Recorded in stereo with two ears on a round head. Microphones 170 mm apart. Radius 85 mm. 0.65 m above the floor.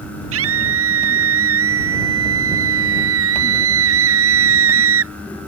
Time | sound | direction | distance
0.3 | a scream | 85° right | ?